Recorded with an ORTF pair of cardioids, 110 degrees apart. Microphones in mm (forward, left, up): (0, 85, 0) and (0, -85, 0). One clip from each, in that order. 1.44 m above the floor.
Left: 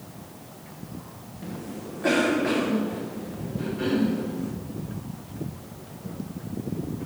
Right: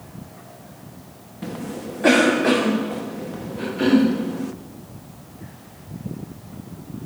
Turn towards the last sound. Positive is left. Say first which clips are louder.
# right 6 dB
turn(degrees=-45)